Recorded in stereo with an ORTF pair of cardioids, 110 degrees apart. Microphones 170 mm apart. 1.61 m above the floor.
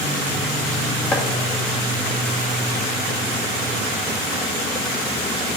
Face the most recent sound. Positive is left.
turn(degrees=15)